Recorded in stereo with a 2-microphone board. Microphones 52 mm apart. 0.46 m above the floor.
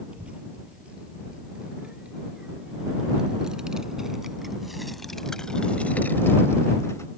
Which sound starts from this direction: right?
A child speaking, at 0.1 s.